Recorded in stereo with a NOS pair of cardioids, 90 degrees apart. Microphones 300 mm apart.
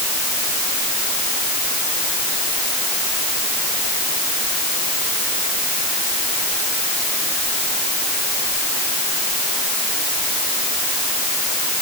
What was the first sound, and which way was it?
Only background noise.